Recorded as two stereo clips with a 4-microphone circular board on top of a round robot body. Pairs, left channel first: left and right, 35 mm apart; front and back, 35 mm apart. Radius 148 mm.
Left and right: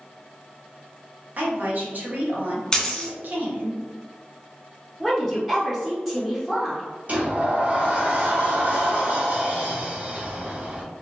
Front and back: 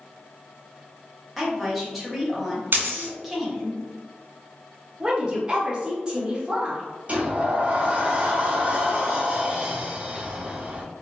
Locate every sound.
1.4 s a woman speaking: 90° right, 1.5 m
2.7 s a dropped coin: 165° left, 1.1 m
5.0 s a woman speaking: 160° right, 1.2 m
7.1 s a sliding door: 135° right, 1.0 m